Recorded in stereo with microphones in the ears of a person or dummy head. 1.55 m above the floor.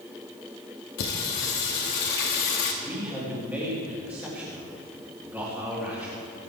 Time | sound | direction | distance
1.0 | singing | 60° left (ahead or behind) | 1.5 m
2.8 | a man speaking | 10° right (ahead or behind) | 3 m